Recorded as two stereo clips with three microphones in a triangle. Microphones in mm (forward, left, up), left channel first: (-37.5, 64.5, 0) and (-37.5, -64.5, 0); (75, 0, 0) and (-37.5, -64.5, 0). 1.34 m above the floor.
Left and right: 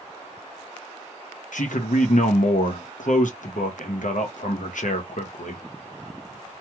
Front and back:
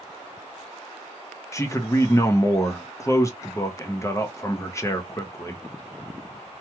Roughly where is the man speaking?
Left.